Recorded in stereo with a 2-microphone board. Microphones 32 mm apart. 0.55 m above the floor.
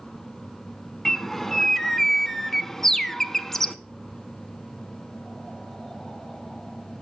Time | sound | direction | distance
1.1 | a bird | 5° left (ahead or behind) | 0.7 m